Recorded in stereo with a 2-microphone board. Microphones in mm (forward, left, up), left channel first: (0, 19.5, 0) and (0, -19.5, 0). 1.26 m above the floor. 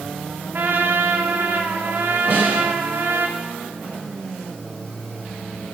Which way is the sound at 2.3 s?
65° right (ahead or behind).